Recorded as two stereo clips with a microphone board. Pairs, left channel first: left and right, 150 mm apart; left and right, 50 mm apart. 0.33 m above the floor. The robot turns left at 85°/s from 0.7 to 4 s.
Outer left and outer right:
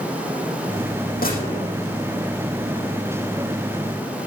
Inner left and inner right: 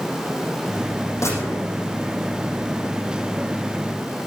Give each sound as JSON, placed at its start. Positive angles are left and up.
{"t": 1.2, "sound": "a gunshot", "azimuth_deg": 105, "distance_m": 8.0}